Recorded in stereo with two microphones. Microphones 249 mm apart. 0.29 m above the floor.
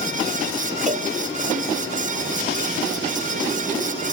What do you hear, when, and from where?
0.9 s a cowbell: 30° right (ahead or behind), 1.6 m